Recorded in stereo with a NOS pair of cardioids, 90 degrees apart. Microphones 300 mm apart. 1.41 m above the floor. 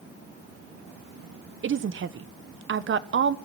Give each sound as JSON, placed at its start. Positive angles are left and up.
{"t": 1.6, "sound": "a woman speaking", "azimuth_deg": -45, "distance_m": 1.1}